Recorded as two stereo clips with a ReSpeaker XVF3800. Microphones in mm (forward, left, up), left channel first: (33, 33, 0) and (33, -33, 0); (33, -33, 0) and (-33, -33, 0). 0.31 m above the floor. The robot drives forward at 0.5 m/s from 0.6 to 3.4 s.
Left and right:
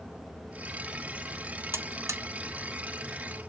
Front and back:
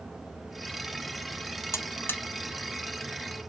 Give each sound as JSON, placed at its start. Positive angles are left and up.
{"t": 1.7, "sound": "a buzzer", "azimuth_deg": -45, "distance_m": 0.8}